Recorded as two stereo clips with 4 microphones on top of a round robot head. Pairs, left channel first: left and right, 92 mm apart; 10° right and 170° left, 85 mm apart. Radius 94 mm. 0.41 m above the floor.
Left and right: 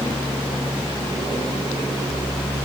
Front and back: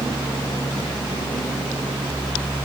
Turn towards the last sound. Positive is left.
No sound to turn to.